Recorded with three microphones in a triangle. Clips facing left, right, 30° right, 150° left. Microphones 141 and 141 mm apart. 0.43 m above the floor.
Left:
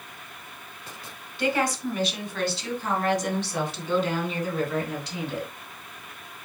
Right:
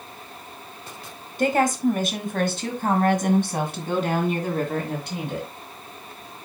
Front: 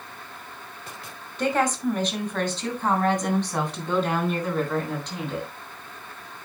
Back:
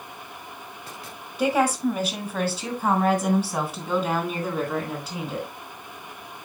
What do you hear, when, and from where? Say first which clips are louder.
1.4 s a woman speaking: right 5 dB, back 2 dB; 130° right, 1.9 m; by 5.5 s 125° right, 4 m